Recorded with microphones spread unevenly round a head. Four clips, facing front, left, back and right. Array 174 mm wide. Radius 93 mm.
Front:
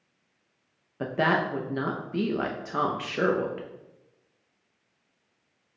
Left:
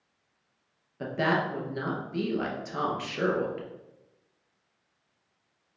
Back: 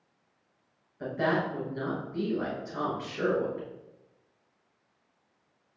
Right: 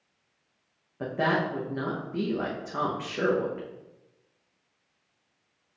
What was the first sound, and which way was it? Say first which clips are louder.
A woman speaking: right 1 dB, front 3 dB; 5° right.